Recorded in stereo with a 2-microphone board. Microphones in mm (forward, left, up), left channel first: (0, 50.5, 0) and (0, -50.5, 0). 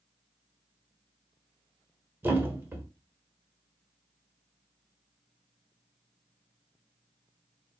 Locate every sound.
2.2 s a thud: 25° right (ahead or behind), 1.0 m